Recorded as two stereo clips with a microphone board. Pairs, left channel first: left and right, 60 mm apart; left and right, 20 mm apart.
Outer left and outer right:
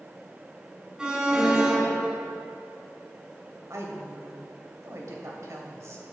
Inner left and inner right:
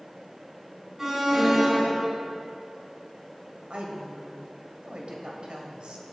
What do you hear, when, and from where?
1.0 s an alarm: 15° right (ahead or behind), 2.5 m
3.7 s a woman speaking: 60° right (ahead or behind), 2.5 m